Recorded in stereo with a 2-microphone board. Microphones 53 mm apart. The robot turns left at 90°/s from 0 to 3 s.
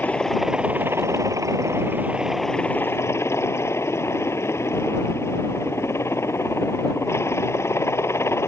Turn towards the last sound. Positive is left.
turn(degrees=125)